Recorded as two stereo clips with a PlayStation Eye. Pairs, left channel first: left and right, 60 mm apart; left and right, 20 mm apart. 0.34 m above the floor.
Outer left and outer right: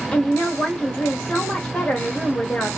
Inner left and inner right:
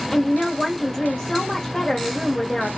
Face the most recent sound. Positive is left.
turn(degrees=20)  # may be behind; listen again after turning